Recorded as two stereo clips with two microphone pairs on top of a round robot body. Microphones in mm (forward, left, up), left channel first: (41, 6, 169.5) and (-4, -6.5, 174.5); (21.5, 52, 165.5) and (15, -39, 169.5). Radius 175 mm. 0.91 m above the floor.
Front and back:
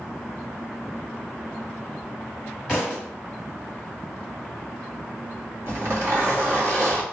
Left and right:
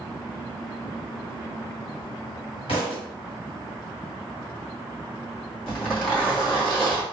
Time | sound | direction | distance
2.7 | a thud | 110° left | 1.2 m
5.7 | a zipper | 165° left | 1.8 m